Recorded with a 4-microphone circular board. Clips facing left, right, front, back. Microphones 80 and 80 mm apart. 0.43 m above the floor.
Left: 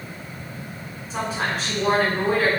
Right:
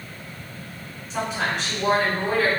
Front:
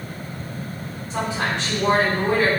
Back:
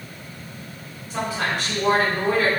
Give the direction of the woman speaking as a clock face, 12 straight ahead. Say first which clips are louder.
Even, front 1 dB; 10 o'clock.